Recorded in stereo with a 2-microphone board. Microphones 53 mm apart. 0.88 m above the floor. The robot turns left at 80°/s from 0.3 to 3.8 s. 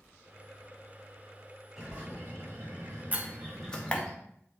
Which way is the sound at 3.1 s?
30° right (ahead or behind).